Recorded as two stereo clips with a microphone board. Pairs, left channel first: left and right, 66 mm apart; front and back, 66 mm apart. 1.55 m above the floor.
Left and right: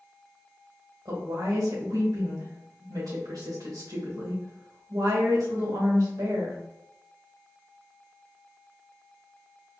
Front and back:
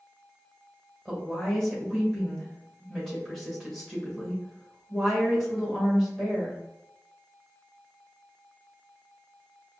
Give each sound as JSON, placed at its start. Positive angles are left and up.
{"t": 1.1, "sound": "a woman speaking", "azimuth_deg": -90, "distance_m": 2.0}